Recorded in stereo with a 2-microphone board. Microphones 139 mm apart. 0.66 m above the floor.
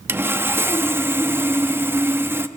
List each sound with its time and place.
0.1 s sawing: 15° right (ahead or behind), 0.5 m